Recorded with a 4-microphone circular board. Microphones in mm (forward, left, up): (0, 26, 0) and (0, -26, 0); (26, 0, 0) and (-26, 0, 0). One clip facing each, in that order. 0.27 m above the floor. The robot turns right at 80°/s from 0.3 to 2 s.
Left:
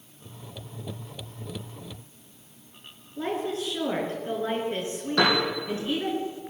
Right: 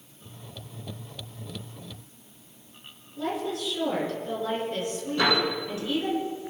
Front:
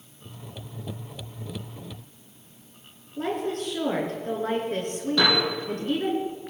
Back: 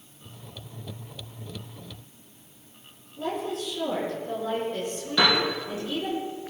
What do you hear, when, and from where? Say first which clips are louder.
3.2 s a woman speaking: left 1 dB, front 2 dB; 30° left, 4.5 m
5.2 s a piano: left 1 dB, back 1 dB; 95° left, 6.5 m